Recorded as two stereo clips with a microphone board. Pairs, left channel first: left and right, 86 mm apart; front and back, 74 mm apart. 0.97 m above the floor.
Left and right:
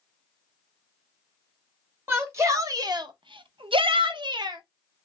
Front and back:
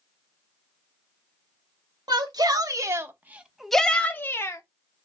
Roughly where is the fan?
No fan in this recording.